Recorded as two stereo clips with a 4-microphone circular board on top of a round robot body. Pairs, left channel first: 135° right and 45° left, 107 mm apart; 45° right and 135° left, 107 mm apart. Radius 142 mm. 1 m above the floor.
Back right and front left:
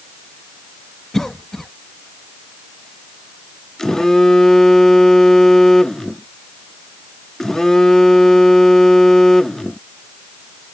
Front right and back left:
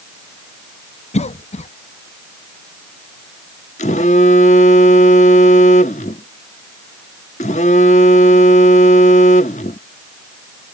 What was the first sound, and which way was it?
A cough, 50° right.